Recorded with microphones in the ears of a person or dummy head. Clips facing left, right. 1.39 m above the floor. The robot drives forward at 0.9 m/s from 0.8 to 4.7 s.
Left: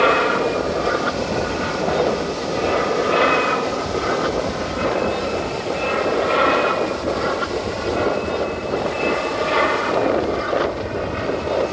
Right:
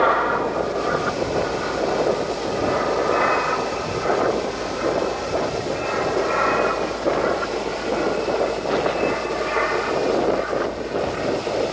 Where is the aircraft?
35° left (ahead or behind); by 11.7 s 55° left (ahead or behind).